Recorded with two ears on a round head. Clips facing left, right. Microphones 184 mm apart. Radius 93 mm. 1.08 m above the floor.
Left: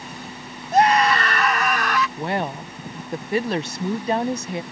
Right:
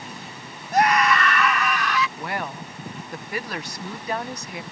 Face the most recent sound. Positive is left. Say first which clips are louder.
# left 5 dB
turn(degrees=25)  # may be behind; listen again after turning